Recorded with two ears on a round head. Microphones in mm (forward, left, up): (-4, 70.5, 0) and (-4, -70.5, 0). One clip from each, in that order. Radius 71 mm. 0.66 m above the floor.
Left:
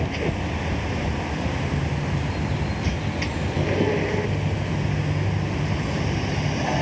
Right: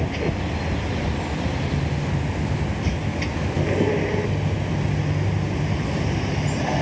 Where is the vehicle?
10° left (ahead or behind).